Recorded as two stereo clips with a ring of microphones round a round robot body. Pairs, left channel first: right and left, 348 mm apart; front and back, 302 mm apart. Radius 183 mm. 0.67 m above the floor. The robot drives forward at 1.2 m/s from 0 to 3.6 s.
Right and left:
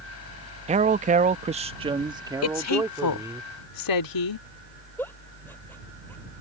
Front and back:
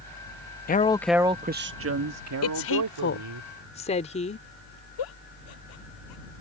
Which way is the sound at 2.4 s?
45° right.